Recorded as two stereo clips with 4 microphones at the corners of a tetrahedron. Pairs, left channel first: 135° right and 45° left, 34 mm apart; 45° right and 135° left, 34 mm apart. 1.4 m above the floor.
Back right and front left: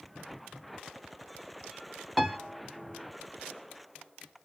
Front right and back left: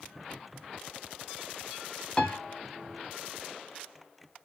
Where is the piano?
35° right, 0.8 m.